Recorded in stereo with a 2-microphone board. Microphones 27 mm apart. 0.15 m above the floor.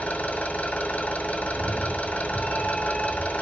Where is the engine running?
65° left (ahead or behind), 0.8 m.